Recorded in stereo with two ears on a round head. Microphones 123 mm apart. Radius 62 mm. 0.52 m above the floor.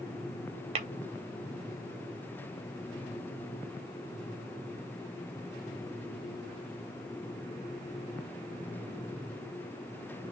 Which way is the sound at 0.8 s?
45° right (ahead or behind).